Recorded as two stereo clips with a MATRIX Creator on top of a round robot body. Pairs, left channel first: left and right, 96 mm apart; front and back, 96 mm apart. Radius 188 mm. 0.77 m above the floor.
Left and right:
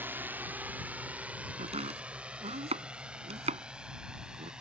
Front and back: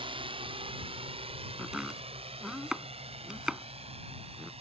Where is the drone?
160° right; by 4.6 s 175° right.